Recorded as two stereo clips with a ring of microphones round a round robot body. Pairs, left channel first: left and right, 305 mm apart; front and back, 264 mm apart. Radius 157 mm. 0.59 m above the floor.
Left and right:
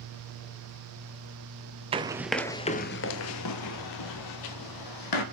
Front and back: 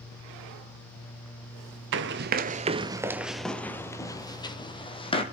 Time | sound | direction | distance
1.9 | running footsteps | 155° right | 0.7 m